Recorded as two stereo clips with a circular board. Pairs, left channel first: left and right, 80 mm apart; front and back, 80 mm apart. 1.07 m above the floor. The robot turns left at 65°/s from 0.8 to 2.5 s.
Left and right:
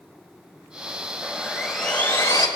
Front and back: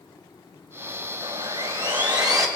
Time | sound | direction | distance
1.2 | sawing | 150° right | 3 m